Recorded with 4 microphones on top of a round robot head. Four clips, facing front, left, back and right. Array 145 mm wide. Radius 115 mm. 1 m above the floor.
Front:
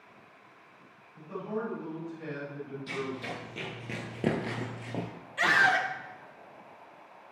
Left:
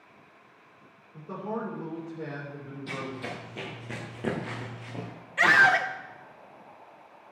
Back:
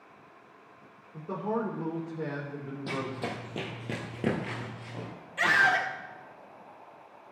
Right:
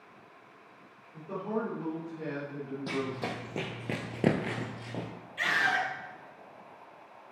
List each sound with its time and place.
1.1 s a man speaking: 175° left, 2.5 m
2.9 s running footsteps: 135° right, 2.5 m; by 5.1 s 15° right, 1.5 m
5.4 s a scream: 80° left, 0.9 m